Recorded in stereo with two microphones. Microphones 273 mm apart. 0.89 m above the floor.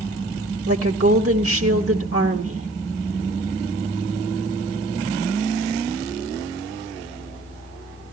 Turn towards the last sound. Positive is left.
turn(degrees=-55)  # may be behind; listen again after turning